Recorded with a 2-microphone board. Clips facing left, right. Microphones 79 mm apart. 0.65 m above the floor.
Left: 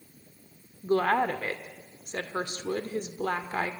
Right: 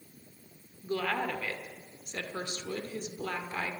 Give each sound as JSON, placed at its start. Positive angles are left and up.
{"t": 0.8, "sound": "a woman speaking", "side_deg": 40, "distance_m": 1.7}